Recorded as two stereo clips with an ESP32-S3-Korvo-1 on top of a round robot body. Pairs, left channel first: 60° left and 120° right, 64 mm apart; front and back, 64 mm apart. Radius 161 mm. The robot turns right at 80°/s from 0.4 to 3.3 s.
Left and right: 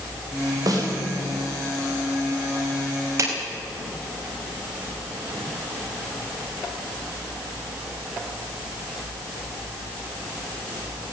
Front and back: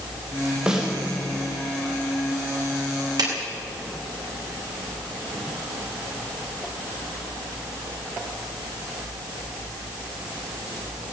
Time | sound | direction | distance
0.7 | a snare drum | 105° right | 4 m
3.2 | a clap | 165° right | 4.5 m